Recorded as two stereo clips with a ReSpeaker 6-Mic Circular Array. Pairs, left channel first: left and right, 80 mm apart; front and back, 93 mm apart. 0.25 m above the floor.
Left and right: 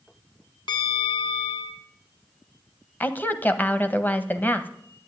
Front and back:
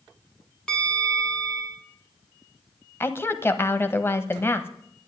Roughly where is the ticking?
No ticking in this recording.